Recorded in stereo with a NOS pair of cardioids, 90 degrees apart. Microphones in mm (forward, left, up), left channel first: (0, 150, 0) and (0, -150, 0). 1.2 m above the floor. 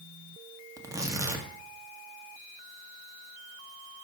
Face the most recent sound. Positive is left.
turn(degrees=-10)